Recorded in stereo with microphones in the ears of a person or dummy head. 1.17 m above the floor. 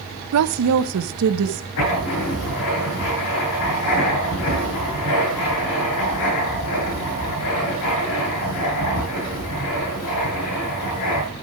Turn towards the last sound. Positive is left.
turn(degrees=65)  # may be behind; listen again after turning